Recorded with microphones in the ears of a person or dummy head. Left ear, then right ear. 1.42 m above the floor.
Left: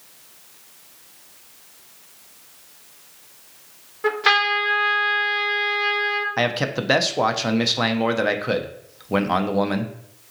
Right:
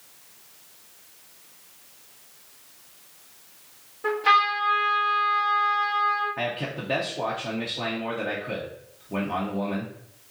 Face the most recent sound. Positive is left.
turn(degrees=60)  # may be behind; listen again after turning